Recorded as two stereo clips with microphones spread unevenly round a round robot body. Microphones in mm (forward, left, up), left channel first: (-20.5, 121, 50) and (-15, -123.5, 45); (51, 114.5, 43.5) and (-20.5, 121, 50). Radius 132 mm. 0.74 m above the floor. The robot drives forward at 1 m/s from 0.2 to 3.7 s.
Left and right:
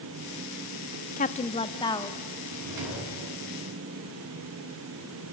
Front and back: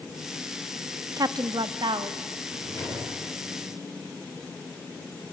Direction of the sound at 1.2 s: 140° left.